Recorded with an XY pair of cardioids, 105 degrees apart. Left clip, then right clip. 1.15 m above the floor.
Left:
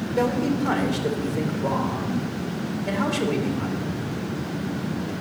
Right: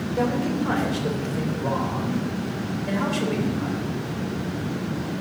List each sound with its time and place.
0.2 s a man speaking: 50° left, 3.5 m